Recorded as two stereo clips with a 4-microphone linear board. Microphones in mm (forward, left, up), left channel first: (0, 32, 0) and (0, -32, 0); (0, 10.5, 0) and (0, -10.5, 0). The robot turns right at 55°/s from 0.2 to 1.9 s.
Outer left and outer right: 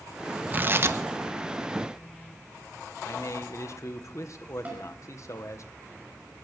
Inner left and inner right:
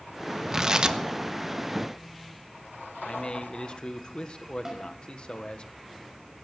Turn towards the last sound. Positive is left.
turn(degrees=-25)  # may be behind; listen again after turning